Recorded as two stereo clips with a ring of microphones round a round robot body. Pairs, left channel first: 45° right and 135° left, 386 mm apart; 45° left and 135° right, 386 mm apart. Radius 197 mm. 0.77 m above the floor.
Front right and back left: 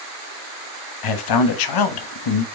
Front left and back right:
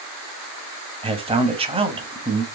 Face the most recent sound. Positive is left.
turn(degrees=-60)